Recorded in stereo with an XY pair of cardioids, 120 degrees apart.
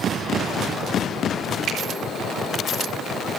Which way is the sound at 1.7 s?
65° right.